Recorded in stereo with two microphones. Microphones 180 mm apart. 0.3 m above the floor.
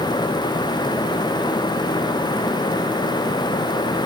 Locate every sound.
Only background noise.